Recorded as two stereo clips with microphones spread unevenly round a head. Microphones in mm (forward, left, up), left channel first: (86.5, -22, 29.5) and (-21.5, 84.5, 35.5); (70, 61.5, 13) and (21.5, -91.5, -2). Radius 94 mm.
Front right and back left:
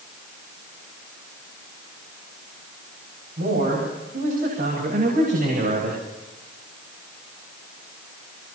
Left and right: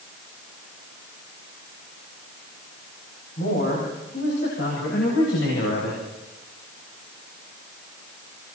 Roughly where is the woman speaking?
Behind left.